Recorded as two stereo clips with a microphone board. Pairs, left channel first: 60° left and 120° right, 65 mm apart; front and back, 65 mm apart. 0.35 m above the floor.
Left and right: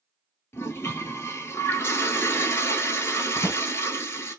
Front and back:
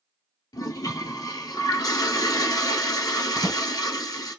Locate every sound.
0.5 s a toilet flushing: 10° left, 0.9 m
3.4 s a drawer: 25° left, 1.3 m